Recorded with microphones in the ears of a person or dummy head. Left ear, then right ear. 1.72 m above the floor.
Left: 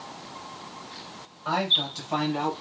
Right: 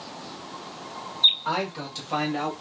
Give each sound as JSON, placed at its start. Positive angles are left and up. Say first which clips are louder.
{"t": 1.4, "sound": "a man speaking", "louder": "left 5 dB", "side_deg": -5, "distance_m": 1.4}